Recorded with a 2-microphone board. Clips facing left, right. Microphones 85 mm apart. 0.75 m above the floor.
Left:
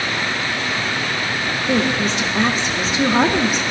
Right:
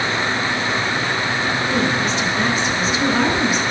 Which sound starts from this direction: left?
A woman speaking, at 1.7 s.